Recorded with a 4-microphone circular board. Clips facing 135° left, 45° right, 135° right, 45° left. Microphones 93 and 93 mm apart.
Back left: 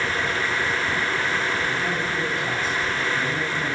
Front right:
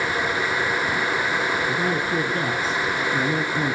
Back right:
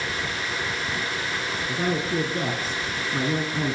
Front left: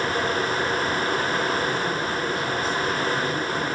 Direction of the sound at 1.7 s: 95° right.